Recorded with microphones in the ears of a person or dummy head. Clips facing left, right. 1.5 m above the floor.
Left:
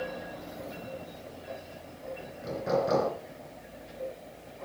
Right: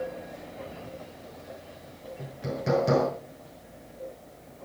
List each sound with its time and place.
2.2 s hammering: 35° right (ahead or behind), 6.5 m